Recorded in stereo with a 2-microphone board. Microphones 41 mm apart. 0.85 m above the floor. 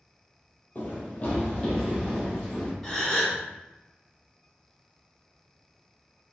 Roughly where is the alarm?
I don't hear an alarm.